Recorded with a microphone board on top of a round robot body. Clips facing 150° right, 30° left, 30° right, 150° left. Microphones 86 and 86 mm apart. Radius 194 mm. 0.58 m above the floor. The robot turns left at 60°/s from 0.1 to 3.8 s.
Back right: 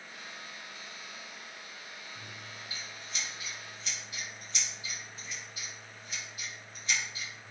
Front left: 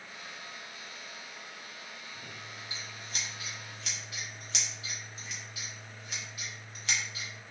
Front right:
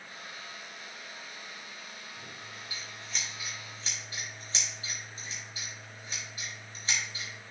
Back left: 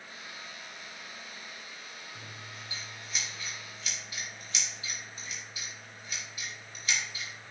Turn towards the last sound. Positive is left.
turn(degrees=25)